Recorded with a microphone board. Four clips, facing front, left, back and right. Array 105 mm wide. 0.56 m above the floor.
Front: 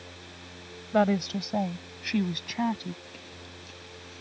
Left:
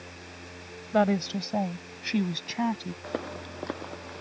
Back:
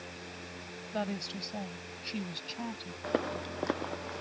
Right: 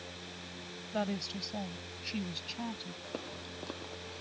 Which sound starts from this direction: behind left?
Footsteps, at 3.0 s.